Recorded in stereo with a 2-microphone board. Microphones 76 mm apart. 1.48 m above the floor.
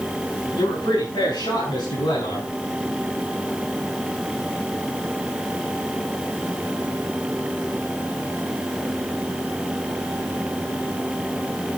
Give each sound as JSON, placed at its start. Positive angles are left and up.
{"t": 0.6, "sound": "a man speaking", "side_deg": 85, "distance_m": 10.0}